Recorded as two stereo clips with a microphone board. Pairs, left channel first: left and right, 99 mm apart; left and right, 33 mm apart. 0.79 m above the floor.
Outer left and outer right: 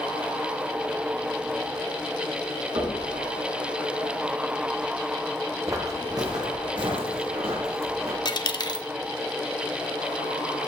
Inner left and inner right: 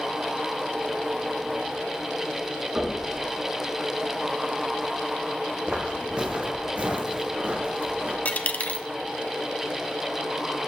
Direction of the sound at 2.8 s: 55° right (ahead or behind).